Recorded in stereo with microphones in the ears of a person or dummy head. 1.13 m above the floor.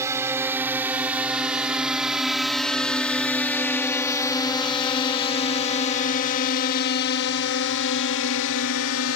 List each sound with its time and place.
0.0 s a drone: 15° right (ahead or behind); by 9.2 s 75° left (ahead or behind)